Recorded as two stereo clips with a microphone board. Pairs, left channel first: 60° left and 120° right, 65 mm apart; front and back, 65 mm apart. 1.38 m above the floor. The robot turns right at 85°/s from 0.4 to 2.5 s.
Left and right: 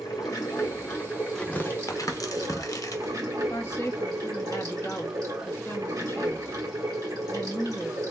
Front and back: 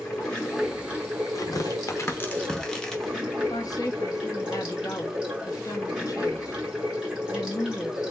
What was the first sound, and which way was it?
Running water, 75° left.